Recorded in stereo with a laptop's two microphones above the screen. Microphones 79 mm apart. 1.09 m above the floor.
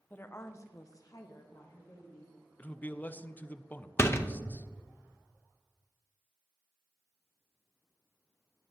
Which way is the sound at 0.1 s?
25° left (ahead or behind).